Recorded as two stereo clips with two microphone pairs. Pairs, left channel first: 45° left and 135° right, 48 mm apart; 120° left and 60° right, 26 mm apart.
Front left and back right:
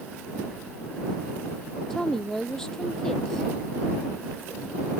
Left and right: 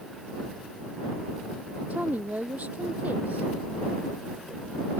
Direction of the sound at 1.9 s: 35° right.